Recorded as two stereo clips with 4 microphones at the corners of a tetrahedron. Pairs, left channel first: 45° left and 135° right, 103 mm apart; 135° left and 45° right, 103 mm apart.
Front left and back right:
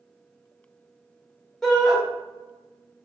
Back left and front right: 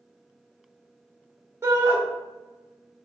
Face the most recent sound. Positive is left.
turn(degrees=-40)